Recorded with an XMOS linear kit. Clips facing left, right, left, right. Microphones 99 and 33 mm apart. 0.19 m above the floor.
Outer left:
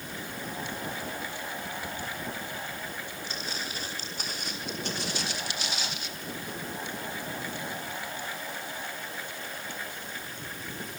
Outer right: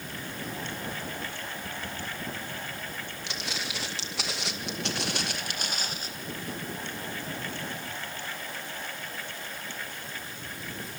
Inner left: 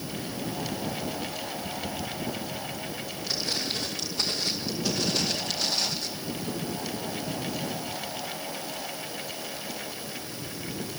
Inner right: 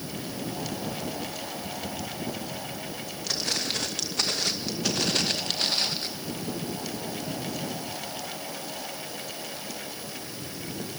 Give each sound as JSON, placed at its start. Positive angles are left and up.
{"t": 3.3, "sound": "footsteps", "side_deg": -80, "distance_m": 2.5}